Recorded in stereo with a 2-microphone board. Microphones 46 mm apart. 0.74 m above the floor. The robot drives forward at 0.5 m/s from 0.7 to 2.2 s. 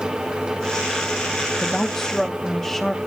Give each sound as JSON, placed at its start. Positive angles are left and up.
{"t": 1.6, "sound": "a woman speaking", "side_deg": 15, "distance_m": 0.7}